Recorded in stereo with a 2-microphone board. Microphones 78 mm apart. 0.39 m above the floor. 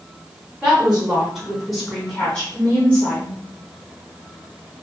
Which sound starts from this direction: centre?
A woman speaking, at 0.6 s.